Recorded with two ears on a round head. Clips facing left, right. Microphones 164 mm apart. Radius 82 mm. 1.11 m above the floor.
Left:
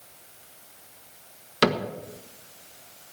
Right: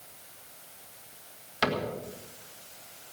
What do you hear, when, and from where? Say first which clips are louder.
1.6 s a cupboard door: left 6 dB; 60° left (ahead or behind), 1.4 m